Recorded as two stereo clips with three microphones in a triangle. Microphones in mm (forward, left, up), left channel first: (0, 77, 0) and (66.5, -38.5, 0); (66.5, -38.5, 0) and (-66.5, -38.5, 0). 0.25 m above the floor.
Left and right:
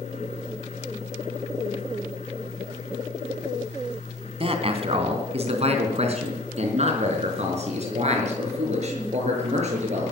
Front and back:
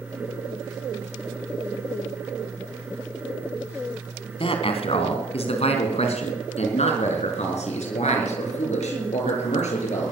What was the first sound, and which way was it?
A man speaking, 30° right.